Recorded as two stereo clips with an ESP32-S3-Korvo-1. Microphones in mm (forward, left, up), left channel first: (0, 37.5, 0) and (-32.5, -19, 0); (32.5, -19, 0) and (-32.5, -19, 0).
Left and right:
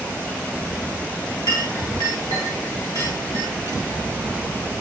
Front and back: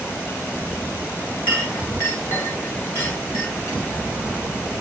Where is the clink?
45° left, 7 m.